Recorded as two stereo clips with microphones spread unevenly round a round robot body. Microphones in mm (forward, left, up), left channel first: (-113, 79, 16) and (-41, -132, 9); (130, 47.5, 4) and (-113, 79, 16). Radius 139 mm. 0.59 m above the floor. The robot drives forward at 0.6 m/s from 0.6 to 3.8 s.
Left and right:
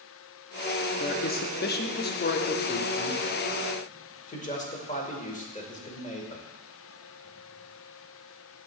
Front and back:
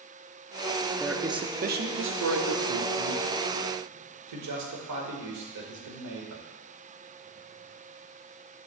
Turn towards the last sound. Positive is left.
turn(degrees=165)